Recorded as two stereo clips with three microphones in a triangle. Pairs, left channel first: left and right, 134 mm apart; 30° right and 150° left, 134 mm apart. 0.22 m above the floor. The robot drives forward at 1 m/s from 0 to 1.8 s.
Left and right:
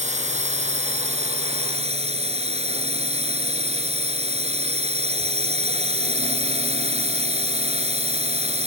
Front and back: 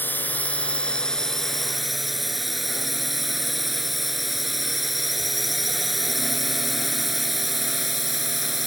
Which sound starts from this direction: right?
A drone, at 0.0 s.